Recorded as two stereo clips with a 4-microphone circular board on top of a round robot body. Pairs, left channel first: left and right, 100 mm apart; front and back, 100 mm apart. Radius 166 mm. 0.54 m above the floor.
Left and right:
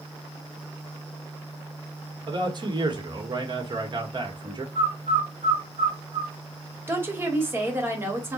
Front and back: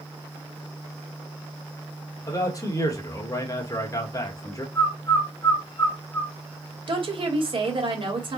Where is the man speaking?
50° right, 1.5 m.